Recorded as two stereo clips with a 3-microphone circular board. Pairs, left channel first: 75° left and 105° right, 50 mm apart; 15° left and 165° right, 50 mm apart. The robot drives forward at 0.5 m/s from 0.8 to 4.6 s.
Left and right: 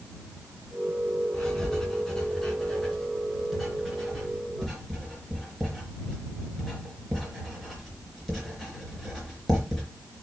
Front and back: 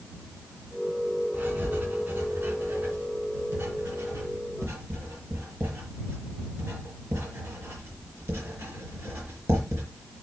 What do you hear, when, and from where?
1.3 s writing: 150° left, 2.5 m; by 9.8 s 160° left, 4 m